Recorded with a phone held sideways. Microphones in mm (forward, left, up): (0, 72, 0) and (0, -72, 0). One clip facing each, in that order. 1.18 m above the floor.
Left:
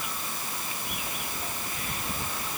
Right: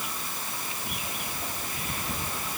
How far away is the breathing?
I don't hear breathing.